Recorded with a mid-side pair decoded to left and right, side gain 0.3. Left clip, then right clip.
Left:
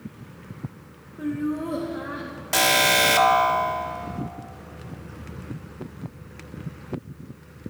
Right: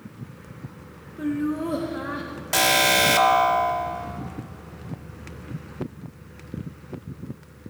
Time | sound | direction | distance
1.2 | laughter | 25° right | 1.6 m
2.5 | an alarm | 5° left | 1.4 m